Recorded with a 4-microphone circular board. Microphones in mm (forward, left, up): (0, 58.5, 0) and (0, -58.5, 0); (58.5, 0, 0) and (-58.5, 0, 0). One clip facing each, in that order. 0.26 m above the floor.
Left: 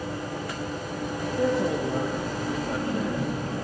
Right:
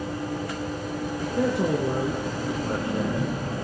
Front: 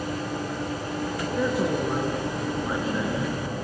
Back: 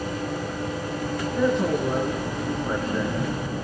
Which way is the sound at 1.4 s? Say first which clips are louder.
Right 1 dB, back 3 dB; 85° right.